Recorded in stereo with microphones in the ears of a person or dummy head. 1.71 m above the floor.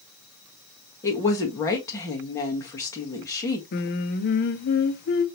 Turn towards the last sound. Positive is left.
turn(degrees=55)  # may be behind; listen again after turning